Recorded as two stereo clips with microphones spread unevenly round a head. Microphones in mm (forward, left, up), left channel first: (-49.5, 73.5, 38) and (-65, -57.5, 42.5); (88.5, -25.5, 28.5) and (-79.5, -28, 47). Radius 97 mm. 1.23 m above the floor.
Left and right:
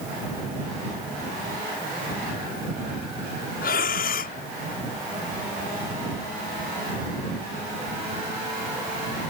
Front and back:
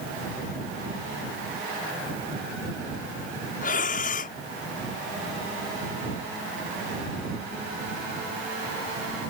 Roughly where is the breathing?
Ahead left.